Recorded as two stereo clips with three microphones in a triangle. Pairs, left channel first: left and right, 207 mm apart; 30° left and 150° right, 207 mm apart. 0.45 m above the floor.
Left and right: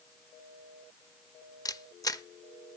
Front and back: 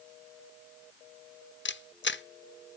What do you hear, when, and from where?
1.6 s a camera shutter: 20° left, 0.5 m